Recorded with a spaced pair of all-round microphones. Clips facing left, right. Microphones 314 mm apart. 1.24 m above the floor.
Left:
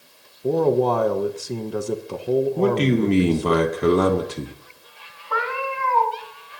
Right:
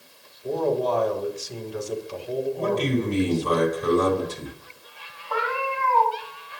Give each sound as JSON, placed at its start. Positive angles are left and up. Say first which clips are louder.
{"t": 0.4, "sound": "a man speaking", "louder": "left 5 dB", "side_deg": 60, "distance_m": 1.0}
{"t": 2.6, "sound": "a man speaking", "louder": "left 5 dB", "side_deg": 75, "distance_m": 1.6}
{"t": 5.3, "sound": "a cat meowing", "louder": "even", "side_deg": 30, "distance_m": 5.0}